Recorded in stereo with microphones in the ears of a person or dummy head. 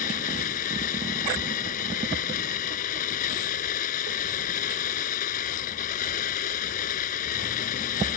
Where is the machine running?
45° left (ahead or behind).